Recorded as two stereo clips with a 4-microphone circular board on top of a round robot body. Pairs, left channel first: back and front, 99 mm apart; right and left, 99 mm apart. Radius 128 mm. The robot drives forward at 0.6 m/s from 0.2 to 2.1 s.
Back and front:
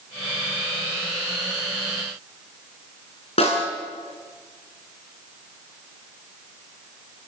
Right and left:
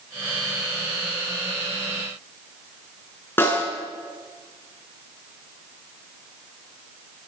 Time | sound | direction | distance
3.4 | a snare drum | 160° right | 6.5 m